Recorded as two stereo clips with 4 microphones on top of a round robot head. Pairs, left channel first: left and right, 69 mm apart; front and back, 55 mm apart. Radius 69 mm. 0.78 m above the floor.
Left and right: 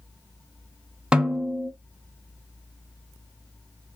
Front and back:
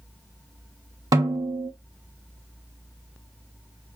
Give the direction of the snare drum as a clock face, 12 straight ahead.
6 o'clock.